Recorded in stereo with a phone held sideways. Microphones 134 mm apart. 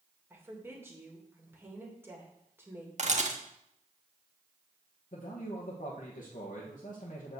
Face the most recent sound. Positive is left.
turn(degrees=80)